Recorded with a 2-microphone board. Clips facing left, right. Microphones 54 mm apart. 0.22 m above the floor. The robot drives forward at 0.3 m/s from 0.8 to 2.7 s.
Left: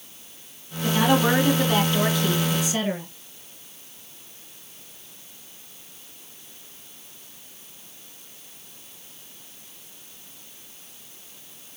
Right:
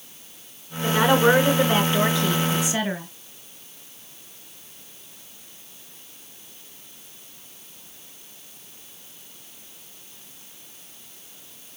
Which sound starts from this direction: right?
A woman speaking, at 0.8 s.